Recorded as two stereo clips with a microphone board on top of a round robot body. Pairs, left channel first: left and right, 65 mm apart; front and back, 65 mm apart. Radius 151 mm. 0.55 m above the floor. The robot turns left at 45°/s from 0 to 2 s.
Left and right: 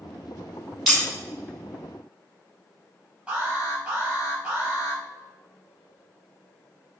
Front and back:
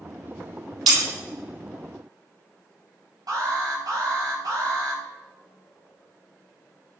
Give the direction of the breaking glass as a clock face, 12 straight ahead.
6 o'clock.